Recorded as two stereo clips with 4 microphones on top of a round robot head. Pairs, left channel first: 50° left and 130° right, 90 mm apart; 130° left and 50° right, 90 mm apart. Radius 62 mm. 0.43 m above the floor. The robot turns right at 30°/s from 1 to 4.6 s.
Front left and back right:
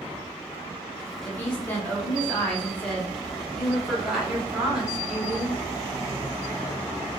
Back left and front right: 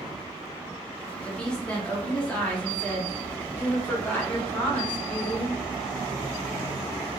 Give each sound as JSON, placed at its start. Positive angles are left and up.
{"t": 1.2, "sound": "a woman speaking", "azimuth_deg": 65, "distance_m": 0.9}